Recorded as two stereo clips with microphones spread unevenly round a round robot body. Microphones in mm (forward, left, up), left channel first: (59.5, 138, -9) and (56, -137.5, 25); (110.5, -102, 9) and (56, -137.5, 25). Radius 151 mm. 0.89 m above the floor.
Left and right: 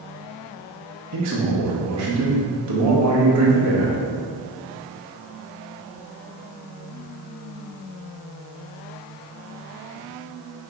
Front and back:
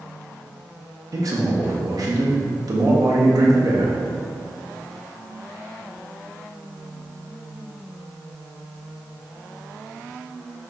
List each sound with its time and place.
1.1 s a man speaking: 120° right, 1.7 m